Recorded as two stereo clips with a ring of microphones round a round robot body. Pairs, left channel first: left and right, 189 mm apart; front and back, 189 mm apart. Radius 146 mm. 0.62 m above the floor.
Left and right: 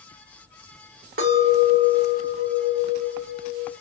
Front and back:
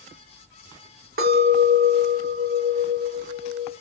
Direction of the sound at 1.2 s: 135° right.